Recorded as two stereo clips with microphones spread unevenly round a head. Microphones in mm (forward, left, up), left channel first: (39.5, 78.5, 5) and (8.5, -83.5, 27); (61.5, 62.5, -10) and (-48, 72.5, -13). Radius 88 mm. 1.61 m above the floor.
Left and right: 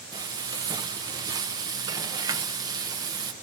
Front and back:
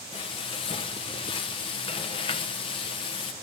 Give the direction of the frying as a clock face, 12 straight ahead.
1 o'clock.